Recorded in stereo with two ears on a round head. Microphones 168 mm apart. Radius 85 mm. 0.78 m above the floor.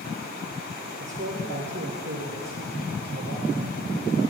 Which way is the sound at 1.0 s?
65° right (ahead or behind).